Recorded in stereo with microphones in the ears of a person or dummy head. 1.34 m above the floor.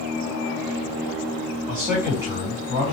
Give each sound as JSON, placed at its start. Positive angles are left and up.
{"t": 1.7, "sound": "a man speaking", "side_deg": -20, "distance_m": 2.5}